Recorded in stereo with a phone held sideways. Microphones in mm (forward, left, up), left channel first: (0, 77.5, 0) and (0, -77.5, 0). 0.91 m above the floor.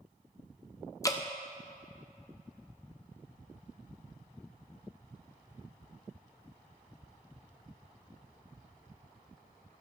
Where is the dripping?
20° left (ahead or behind), 0.6 m.